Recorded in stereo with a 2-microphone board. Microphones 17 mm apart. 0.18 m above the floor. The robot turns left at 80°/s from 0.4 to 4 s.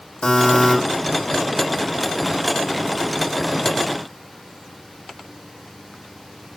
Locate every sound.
0.2 s a buzzer: 70° left (ahead or behind), 6 m; by 0.8 s 40° left (ahead or behind), 6 m